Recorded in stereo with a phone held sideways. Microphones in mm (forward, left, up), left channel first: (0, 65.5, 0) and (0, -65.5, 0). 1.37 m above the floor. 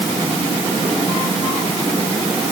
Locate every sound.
Only background noise.